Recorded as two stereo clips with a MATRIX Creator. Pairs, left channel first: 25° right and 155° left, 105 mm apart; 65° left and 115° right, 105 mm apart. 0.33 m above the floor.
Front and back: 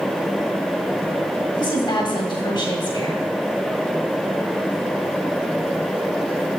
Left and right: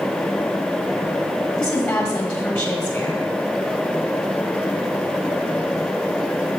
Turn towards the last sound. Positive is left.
turn(degrees=-5)